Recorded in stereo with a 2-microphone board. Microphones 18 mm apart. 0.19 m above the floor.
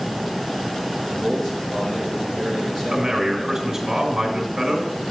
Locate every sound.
1.1 s a man speaking: 25° left (ahead or behind), 4 m
2.9 s a man speaking: 25° right (ahead or behind), 2 m